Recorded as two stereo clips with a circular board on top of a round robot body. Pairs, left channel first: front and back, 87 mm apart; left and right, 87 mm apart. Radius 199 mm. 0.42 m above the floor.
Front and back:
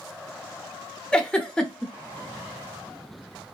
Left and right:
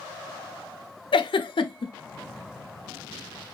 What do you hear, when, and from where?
1.1 s a giggle: 80° left, 0.8 m